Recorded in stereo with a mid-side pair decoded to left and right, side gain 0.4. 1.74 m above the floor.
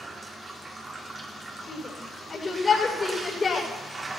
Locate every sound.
0.0 s running water: 30° right, 3 m
1.7 s a shout: 35° left, 7 m